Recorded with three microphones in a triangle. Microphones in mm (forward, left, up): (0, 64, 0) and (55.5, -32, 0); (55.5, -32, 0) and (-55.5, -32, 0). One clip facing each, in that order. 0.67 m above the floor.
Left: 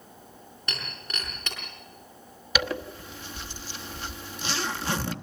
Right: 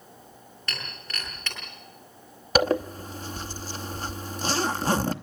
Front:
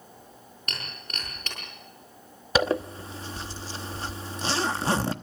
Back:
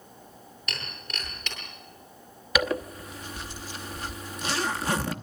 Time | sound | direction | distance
0.7 | breaking glass | 45° left | 8.5 m
2.5 | a zipper | 45° right | 0.9 m